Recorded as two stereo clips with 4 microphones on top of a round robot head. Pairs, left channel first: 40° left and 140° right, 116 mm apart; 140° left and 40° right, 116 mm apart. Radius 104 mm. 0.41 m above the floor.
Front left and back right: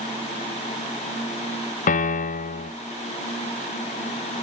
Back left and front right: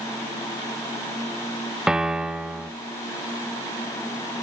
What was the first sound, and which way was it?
A piano, 45° left.